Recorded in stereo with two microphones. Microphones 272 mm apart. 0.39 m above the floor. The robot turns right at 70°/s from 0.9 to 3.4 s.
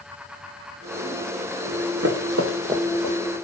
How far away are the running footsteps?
About 1.3 m.